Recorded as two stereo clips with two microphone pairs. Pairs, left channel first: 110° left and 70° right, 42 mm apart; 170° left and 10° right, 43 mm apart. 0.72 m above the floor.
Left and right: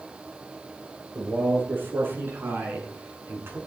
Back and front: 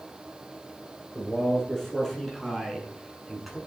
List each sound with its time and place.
1.1 s a man speaking: 105° right, 8 m; by 3.6 s 95° right, 6.5 m